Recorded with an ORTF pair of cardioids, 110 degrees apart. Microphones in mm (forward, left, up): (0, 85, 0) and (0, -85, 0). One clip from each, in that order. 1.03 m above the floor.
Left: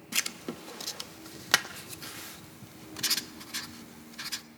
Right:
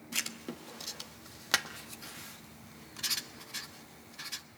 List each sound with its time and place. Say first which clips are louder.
0.1 s writing: left 4 dB; 20° left, 1.1 m